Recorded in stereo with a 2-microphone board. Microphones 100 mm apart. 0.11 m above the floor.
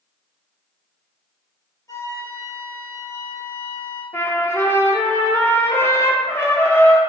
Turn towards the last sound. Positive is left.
turn(degrees=25)  # may be behind; listen again after turning